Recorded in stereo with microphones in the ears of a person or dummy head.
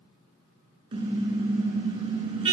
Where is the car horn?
30° right (ahead or behind), 7 m.